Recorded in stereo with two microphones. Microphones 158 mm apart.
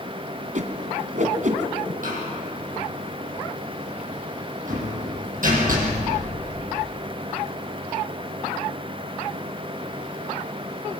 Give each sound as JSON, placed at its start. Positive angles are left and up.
{"t": 0.6, "sound": "a whoosh", "side_deg": -55, "distance_m": 1.4}
{"t": 2.0, "sound": "a door slam", "side_deg": -60, "distance_m": 6.0}